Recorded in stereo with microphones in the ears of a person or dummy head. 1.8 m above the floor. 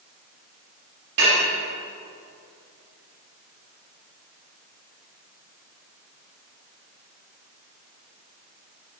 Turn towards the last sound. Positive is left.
turn(degrees=-60)  # may be behind; listen again after turning